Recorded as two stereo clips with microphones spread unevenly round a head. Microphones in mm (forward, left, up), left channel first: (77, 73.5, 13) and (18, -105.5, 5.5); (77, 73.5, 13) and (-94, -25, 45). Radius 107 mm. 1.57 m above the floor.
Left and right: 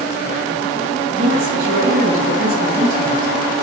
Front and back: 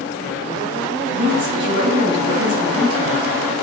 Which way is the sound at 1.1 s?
145° right.